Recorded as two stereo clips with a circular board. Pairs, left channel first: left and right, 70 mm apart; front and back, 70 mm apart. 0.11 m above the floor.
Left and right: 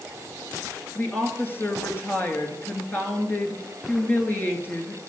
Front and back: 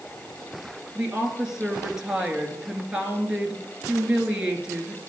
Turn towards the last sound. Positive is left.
turn(degrees=110)